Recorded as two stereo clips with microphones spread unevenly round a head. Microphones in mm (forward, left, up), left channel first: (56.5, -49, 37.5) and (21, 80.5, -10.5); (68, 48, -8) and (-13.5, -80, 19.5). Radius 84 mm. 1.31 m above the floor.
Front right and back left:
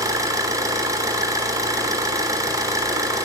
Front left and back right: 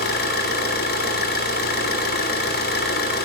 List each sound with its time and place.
0.0 s an engine running: 35° left, 3 m